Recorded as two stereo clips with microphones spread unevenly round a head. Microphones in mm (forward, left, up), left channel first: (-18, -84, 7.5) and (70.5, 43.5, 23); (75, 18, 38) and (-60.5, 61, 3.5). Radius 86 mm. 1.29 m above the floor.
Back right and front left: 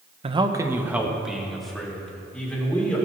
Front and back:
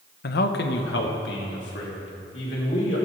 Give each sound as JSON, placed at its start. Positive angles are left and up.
{"t": 0.2, "sound": "a man speaking", "azimuth_deg": 0, "distance_m": 0.9}